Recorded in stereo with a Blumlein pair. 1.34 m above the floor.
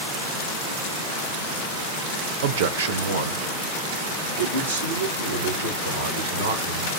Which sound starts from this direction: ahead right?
A man speaking, at 2.4 s.